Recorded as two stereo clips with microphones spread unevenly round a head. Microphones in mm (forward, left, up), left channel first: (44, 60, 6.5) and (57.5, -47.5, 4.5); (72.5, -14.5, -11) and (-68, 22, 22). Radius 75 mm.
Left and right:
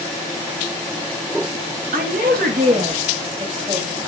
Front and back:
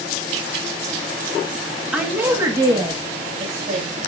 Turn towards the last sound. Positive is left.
turn(degrees=-150)